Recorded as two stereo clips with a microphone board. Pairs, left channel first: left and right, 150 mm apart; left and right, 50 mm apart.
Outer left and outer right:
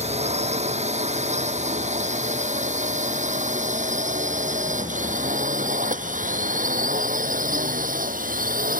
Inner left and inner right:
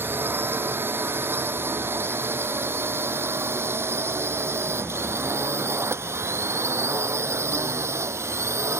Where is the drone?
45° right (ahead or behind); by 8.8 s 65° right (ahead or behind).